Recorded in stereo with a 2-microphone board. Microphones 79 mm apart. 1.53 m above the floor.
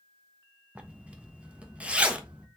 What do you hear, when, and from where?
0.8 s a zipper: 15° right (ahead or behind), 0.8 m